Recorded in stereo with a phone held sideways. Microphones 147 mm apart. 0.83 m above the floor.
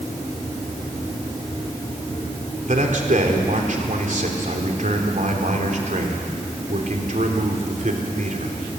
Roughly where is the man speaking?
Right.